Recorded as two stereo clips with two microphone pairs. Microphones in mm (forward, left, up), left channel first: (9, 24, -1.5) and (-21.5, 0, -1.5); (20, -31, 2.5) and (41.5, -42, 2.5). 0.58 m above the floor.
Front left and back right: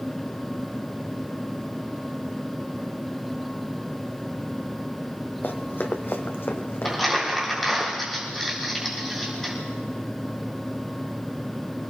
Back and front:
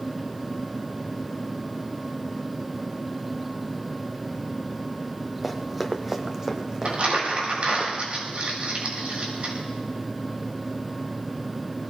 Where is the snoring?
I don't hear snoring.